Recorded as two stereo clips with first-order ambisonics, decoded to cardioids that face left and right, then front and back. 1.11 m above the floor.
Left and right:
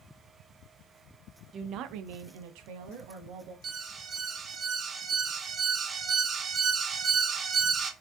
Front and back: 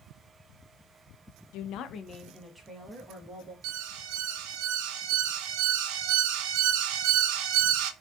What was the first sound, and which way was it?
A woman speaking, 25° right.